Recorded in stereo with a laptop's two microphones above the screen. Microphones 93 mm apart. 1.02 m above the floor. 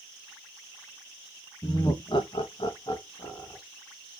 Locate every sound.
1.6 s laughter: 35° left (ahead or behind), 1.2 m